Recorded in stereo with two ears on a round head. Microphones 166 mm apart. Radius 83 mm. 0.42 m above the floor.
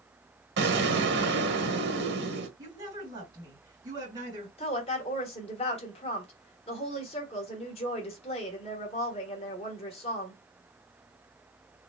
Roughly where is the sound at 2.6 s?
Right.